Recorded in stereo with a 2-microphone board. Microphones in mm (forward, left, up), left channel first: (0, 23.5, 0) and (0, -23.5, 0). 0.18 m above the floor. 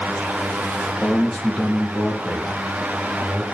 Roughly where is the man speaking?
Centre.